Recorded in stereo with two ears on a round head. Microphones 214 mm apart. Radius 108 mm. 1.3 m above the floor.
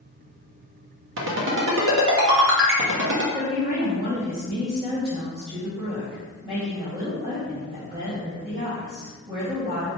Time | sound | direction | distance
1.2 | a ringtone | 60° right (ahead or behind) | 1.2 m
3.3 | a woman speaking | 25° right (ahead or behind) | 1.6 m